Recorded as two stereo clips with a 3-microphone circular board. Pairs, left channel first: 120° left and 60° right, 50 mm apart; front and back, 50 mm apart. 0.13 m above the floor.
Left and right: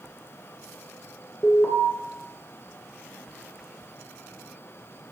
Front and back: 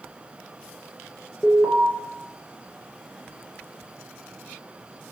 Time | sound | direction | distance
1.4 | an alarm | 70° left | 2 m